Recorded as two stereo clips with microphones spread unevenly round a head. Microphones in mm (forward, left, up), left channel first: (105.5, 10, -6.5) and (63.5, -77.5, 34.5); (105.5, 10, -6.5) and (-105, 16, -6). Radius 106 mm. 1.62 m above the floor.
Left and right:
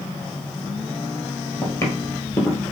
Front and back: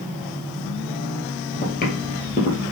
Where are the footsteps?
5° right, 2.0 m; by 2.7 s 25° right, 1.7 m.